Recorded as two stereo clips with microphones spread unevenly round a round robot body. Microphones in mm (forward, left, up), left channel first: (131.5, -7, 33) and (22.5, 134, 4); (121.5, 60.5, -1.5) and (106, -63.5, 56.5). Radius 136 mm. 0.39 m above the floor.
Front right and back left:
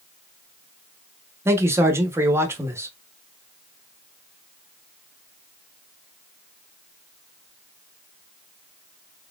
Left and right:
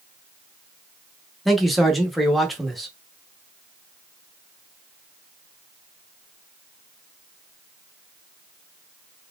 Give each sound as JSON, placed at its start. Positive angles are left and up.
{"t": 1.4, "sound": "a man speaking", "azimuth_deg": 100, "distance_m": 0.9}